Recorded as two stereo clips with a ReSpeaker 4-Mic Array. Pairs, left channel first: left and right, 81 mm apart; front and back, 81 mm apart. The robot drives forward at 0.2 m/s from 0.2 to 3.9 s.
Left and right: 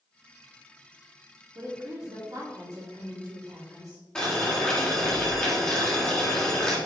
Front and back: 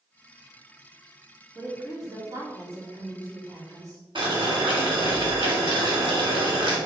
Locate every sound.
1.6 s a woman speaking: 125° right, 3 m; by 4.0 s 130° right, 3 m
4.2 s boiling: 170° left, 2.0 m